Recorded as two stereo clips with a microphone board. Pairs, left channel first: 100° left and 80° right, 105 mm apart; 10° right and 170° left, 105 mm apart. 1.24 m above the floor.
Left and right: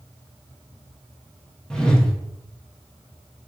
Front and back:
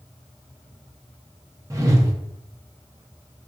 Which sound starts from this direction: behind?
A whoosh, at 1.7 s.